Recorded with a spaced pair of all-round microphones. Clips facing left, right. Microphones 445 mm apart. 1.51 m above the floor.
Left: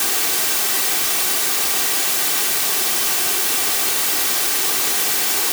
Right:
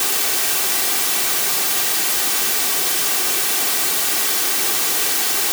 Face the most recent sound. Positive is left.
No sound to turn to.